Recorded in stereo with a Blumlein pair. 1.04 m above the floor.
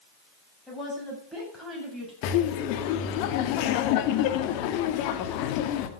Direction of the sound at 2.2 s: 45° left.